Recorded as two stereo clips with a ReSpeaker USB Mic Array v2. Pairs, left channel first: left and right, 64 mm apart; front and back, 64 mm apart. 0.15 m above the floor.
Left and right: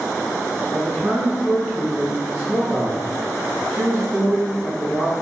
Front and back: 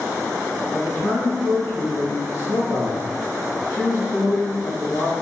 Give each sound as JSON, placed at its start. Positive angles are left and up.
{"t": 0.7, "sound": "a man speaking", "azimuth_deg": -45, "distance_m": 1.9}